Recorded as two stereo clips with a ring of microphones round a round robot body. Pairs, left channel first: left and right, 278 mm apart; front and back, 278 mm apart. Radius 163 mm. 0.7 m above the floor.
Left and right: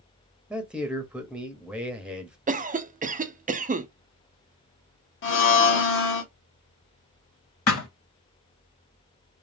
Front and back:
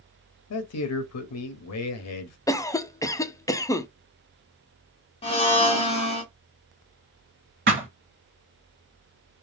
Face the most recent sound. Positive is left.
turn(degrees=125)